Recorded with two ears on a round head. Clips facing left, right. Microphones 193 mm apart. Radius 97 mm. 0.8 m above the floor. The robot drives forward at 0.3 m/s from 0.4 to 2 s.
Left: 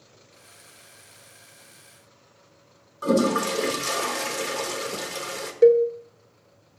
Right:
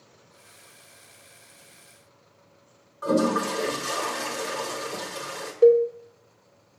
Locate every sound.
3.0 s a toilet flushing: 35° left (ahead or behind), 1.2 m
5.6 s a cowbell: 25° left (ahead or behind), 0.8 m